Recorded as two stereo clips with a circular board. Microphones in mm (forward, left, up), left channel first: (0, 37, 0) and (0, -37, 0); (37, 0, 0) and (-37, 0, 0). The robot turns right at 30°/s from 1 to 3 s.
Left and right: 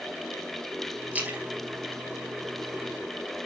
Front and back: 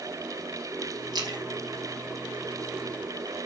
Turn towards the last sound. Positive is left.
turn(degrees=-105)